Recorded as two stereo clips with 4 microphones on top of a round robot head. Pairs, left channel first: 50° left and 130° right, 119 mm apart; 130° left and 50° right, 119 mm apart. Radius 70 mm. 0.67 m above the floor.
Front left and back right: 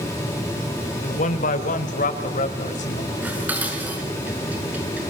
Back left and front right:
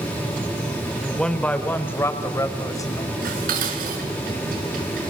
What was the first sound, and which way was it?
A man speaking, 45° left.